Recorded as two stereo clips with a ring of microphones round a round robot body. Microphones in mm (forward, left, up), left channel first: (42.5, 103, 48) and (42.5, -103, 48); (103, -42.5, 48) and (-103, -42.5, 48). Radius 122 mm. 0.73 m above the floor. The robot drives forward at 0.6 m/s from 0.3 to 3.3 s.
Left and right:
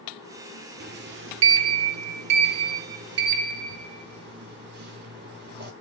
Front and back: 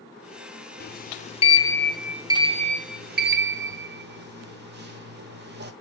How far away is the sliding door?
About 1.0 m.